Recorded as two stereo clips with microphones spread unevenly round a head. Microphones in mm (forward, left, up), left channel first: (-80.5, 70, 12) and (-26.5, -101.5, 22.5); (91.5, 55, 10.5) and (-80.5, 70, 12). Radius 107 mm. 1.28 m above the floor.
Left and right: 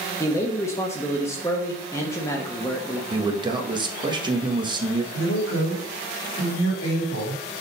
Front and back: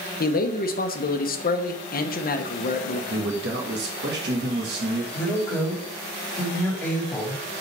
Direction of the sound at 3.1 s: 140° right.